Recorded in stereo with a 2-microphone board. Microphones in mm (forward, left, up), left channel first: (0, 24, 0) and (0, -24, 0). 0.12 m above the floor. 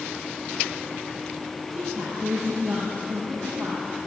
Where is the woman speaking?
75° right (ahead or behind), 5.5 m.